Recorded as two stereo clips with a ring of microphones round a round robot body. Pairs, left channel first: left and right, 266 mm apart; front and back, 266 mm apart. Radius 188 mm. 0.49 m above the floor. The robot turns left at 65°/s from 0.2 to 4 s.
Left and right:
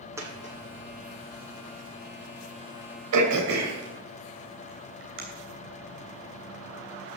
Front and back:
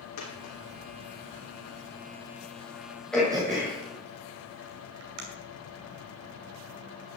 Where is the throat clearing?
85° right, 2.5 m; by 5.2 s 145° right, 2.5 m.